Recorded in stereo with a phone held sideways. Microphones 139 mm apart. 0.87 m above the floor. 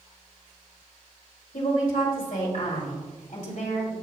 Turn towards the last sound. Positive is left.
turn(degrees=60)  # may be behind; listen again after turning